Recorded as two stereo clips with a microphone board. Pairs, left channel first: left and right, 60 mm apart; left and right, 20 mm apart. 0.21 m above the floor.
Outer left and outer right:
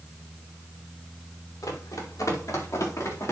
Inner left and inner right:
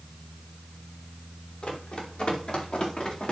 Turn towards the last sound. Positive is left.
turn(degrees=55)  # may be behind; listen again after turning